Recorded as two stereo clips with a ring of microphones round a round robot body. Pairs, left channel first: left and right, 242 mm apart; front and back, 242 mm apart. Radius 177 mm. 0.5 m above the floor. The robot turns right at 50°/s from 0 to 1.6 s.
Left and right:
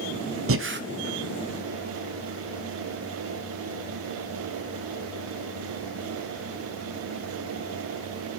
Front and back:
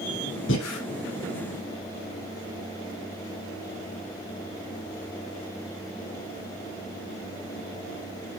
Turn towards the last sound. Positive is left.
turn(degrees=-5)